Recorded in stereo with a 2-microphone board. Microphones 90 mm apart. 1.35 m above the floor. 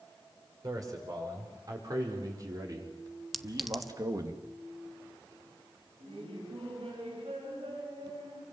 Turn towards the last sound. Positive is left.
turn(degrees=-85)